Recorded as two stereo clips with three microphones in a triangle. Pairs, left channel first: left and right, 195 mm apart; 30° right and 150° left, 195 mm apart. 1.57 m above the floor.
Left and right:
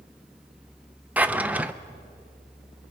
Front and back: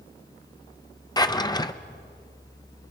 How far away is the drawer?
About 0.6 m.